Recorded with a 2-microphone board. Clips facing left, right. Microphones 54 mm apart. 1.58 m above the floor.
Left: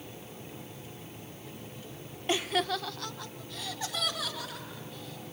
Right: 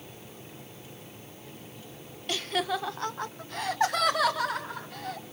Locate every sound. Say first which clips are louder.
2.3 s laughter: even; 25° left (ahead or behind), 0.9 m; by 5.2 s 65° right (ahead or behind), 4 m